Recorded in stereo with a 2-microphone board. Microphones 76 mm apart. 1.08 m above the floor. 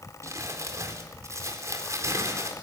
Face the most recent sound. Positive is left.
turn(degrees=-40)  # may be behind; listen again after turning